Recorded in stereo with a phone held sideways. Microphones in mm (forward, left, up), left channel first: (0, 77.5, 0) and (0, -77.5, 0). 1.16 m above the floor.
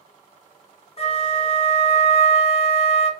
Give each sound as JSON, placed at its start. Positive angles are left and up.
{"t": 1.0, "sound": "a flute", "side_deg": 45, "distance_m": 0.6}